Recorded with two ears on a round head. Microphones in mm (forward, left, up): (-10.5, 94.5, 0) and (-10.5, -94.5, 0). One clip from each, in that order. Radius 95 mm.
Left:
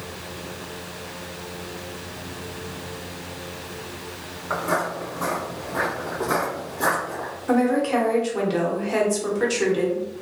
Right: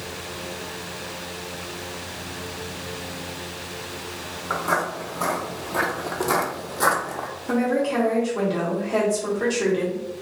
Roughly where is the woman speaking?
Left.